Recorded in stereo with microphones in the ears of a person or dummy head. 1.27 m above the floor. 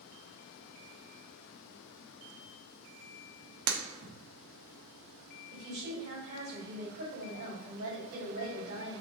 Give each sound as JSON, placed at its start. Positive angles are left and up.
{"t": 3.7, "sound": "breaking glass", "side_deg": -60, "distance_m": 0.7}
{"t": 5.5, "sound": "a woman speaking", "side_deg": -60, "distance_m": 1.8}